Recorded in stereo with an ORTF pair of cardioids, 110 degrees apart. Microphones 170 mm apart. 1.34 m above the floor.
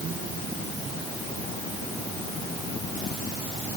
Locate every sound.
Only background noise.